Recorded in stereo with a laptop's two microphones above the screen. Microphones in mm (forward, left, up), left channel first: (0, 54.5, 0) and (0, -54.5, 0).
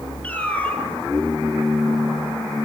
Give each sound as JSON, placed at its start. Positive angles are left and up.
{"t": 0.2, "sound": "a cat meowing", "side_deg": 15, "distance_m": 2.0}